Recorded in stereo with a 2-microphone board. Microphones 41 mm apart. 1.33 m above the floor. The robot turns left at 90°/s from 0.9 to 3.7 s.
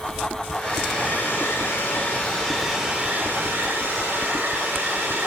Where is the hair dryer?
155° left, 3.5 m; by 5.3 s 95° right, 3.5 m.